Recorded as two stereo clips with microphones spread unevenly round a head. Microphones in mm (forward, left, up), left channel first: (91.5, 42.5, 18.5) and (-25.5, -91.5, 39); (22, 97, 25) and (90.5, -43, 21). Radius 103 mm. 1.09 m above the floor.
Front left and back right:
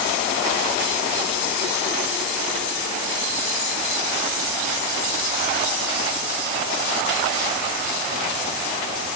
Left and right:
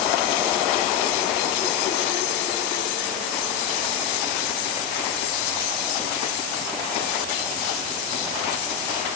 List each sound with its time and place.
Only background noise.